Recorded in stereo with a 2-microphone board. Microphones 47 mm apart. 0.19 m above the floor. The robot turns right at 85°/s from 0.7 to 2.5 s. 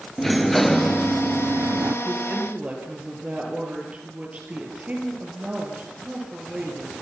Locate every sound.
0.2 s a sliding door: 175° left, 1.1 m; by 1.9 s 80° right, 1.1 m
2.0 s a woman speaking: 70° right, 5 m; by 6.9 s 35° right, 5 m